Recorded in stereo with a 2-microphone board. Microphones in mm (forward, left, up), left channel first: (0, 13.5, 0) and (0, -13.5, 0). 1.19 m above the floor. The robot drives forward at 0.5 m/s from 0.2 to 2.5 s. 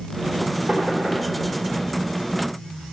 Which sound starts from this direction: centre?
Knocking, at 0.7 s.